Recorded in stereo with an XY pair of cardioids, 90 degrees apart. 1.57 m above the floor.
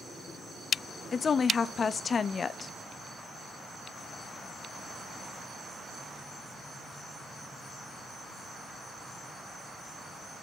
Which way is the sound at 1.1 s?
45° left.